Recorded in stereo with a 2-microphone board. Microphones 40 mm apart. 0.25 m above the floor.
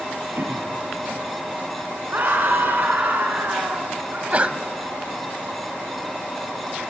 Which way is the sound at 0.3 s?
55° right (ahead or behind).